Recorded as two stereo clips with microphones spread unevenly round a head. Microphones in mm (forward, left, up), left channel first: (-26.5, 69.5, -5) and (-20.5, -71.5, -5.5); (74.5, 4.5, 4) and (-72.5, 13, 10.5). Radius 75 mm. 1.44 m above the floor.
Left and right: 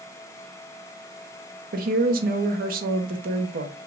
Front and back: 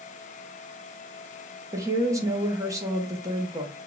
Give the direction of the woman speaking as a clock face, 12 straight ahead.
4 o'clock.